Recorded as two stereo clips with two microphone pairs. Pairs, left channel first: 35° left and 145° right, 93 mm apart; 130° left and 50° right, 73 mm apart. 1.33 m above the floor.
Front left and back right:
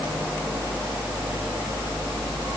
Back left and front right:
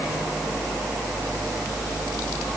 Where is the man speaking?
I don't hear a man speaking.